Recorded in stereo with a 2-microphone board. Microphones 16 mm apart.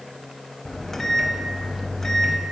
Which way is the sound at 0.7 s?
25° left (ahead or behind).